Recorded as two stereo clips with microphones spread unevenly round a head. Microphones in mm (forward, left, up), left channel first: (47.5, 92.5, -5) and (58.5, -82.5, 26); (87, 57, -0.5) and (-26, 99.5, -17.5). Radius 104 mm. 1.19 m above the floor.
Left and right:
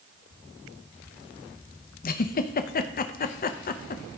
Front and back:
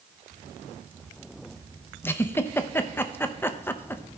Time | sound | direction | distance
2.0 | a giggle | 50° left | 0.7 m